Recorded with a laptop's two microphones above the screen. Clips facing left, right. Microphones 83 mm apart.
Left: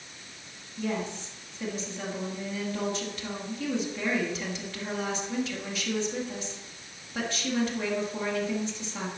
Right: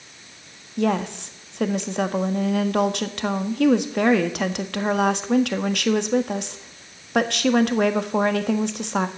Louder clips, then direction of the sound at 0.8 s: Right 9 dB; 65° right (ahead or behind).